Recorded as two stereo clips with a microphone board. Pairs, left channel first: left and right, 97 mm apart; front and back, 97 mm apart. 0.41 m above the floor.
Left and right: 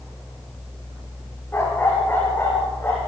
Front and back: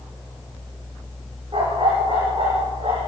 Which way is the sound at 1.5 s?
160° left.